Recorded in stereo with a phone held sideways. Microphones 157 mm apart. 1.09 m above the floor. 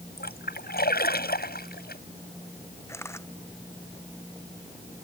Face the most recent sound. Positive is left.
turn(degrees=15)  # may be behind; listen again after turning